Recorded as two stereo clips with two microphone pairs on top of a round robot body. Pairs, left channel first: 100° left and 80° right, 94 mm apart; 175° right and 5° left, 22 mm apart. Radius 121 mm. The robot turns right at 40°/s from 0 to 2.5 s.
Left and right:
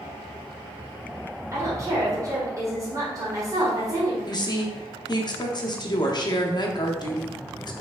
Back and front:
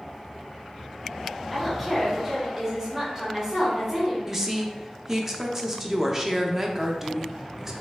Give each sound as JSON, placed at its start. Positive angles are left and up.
{"t": 1.5, "sound": "a woman speaking", "azimuth_deg": -110, "distance_m": 1.6}
{"t": 4.3, "sound": "a woman speaking", "azimuth_deg": 80, "distance_m": 0.8}